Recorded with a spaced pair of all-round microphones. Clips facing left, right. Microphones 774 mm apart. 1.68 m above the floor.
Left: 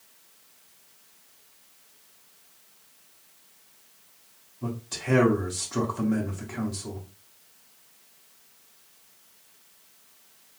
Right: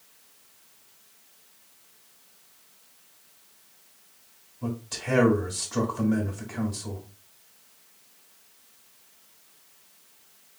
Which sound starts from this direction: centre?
A man speaking, at 4.6 s.